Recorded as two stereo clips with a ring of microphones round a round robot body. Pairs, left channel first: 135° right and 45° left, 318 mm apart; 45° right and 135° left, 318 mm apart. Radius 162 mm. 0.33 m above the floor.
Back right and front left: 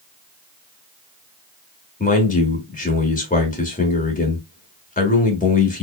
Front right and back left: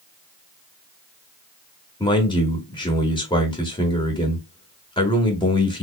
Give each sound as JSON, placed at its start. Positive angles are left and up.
{"t": 2.0, "sound": "a man speaking", "azimuth_deg": -105, "distance_m": 1.2}